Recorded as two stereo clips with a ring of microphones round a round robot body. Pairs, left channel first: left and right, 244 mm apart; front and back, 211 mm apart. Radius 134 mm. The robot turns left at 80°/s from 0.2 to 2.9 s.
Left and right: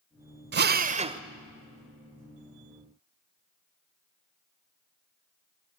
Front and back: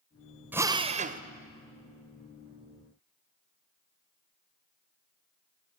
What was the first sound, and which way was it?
A drill, 100° right.